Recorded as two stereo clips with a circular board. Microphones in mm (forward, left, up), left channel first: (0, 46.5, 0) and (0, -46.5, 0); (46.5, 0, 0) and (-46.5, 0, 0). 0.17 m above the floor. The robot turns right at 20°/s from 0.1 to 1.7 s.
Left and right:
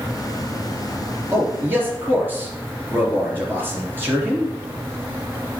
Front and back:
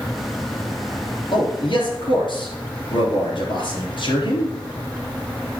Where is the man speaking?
30° right, 3.5 m; by 4.5 s 25° right, 3.5 m.